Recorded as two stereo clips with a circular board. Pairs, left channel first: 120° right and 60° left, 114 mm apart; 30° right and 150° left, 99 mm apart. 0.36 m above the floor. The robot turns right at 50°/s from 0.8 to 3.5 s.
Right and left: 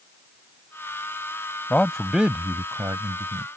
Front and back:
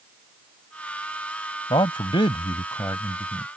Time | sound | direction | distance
1.7 | a man speaking | 45° right | ?